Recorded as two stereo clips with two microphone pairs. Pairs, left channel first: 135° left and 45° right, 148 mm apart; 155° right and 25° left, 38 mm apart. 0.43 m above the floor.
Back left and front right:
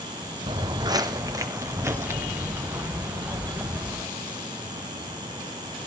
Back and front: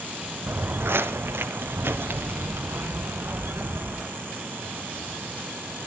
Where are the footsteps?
10° left, 1.0 m; by 4.1 s 35° left, 3 m.